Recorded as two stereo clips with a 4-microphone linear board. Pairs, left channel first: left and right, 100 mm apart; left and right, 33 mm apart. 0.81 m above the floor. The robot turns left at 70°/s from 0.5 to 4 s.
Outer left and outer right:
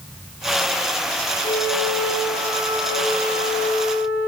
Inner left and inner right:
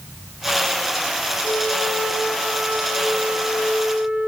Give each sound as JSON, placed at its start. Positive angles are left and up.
{"t": 1.4, "sound": "a flute", "azimuth_deg": 70, "distance_m": 2.0}